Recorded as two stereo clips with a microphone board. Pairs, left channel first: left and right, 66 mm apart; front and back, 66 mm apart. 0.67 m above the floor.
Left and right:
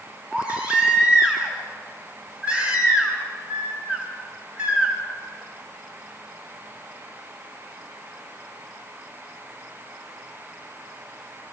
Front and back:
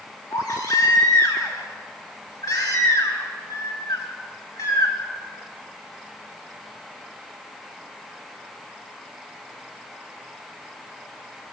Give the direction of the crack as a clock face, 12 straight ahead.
I don't hear a crack.